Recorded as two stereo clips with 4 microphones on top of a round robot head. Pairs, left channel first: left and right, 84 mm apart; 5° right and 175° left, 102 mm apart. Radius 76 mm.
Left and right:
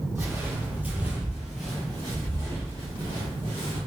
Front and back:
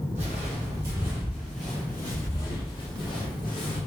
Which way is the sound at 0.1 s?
150° right.